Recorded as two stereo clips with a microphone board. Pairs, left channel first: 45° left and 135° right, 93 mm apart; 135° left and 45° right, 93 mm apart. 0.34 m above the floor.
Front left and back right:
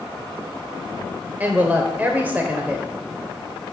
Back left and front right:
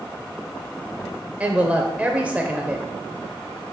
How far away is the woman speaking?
About 0.9 m.